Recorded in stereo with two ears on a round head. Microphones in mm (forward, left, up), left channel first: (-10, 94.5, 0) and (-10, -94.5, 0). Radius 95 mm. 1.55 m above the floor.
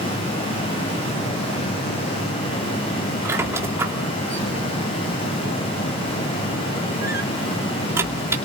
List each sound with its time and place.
3.2 s a squeak: 15° right (ahead or behind), 2.5 m